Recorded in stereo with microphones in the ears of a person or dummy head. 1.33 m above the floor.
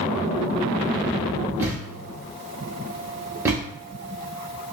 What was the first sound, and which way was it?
A thud, 15° right (ahead or behind).